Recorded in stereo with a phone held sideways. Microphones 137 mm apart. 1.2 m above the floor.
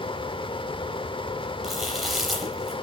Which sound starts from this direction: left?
A fan, at 0.0 s.